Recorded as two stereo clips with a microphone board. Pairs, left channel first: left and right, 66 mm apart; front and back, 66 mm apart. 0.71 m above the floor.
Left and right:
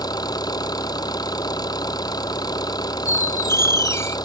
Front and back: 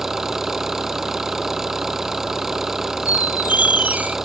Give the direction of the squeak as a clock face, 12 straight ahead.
8 o'clock.